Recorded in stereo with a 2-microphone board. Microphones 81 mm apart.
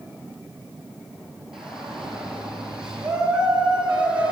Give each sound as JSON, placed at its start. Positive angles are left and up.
{"t": 1.5, "sound": "a shout", "side_deg": -5, "distance_m": 8.5}